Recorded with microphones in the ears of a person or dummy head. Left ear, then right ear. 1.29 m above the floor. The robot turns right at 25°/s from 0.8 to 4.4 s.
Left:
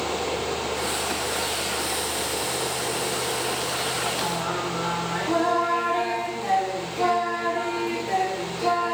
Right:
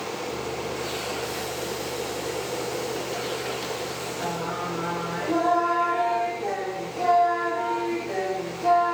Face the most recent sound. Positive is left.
turn(degrees=30)  # may be behind; listen again after turning